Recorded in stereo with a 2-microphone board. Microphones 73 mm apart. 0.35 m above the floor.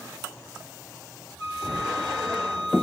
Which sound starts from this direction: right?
A flute, at 1.4 s.